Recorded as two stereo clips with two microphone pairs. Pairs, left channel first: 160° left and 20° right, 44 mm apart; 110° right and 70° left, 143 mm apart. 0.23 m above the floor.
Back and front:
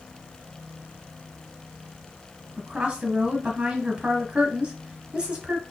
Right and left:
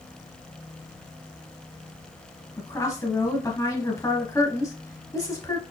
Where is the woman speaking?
60° right, 1.3 m.